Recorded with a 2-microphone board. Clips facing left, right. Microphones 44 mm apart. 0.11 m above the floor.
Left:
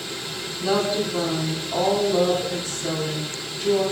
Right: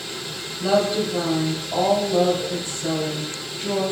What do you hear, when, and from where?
0.6 s a woman speaking: 20° right (ahead or behind), 2 m